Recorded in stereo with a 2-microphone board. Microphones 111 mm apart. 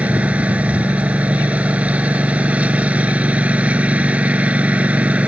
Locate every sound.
0.0 s a lawn mower: 10° right (ahead or behind)